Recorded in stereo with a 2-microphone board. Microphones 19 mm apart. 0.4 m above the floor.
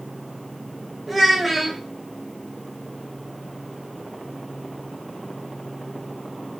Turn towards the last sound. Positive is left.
turn(degrees=0)  # may be behind; listen again after turning